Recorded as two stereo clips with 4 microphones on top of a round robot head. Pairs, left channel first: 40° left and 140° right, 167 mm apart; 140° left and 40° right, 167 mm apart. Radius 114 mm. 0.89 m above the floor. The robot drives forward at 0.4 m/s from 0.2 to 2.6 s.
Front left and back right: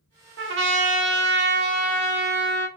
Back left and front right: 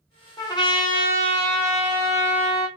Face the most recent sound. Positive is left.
turn(degrees=-170)